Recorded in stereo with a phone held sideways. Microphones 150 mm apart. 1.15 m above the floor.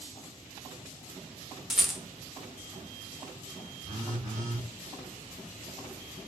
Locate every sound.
1.7 s a rattle: 5° right (ahead or behind), 0.8 m
3.9 s a phone buzzing: 35° right (ahead or behind), 1.9 m